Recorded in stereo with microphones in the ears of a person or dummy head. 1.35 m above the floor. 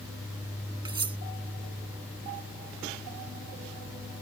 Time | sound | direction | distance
0.8 | cutlery clinking | 15° right (ahead or behind) | ?